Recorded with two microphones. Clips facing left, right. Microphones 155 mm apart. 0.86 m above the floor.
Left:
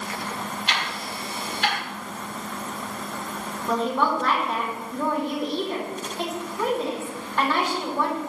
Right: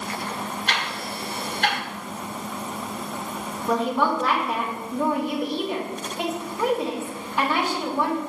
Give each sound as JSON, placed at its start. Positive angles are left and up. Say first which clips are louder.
{"t": 0.7, "sound": "ticking", "louder": "right 1 dB", "side_deg": -50, "distance_m": 1.7}
{"t": 3.7, "sound": "a woman speaking", "louder": "right 1 dB", "side_deg": -10, "distance_m": 2.0}